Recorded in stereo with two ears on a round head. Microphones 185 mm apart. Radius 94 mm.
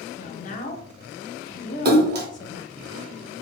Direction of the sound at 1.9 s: 50° right (ahead or behind).